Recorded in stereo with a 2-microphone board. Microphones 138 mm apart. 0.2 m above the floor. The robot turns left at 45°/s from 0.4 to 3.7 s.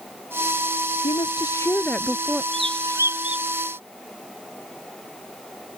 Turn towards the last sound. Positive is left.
turn(degrees=170)